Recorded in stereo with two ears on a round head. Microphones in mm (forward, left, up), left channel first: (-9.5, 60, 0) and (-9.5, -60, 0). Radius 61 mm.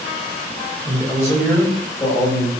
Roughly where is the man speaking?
Centre.